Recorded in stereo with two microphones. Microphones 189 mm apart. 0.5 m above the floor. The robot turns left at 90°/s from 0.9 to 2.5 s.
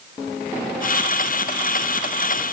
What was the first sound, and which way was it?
Only background noise.